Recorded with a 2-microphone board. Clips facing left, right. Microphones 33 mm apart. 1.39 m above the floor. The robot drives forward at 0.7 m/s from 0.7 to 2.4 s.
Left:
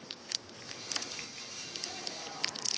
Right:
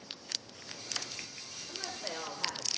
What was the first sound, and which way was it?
A woman speaking, 60° right (ahead or behind).